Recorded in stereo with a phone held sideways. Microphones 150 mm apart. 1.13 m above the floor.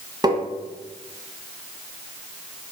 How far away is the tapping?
About 1.3 m.